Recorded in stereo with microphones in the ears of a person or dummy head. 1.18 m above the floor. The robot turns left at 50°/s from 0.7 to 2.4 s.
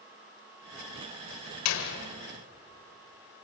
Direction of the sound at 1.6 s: 85° left.